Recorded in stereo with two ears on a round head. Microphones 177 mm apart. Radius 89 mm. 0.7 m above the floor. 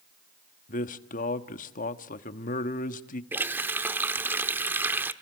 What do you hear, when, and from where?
0.7 s a man speaking: 40° left (ahead or behind), 1.3 m
3.3 s a running tap: 10° right (ahead or behind), 1.0 m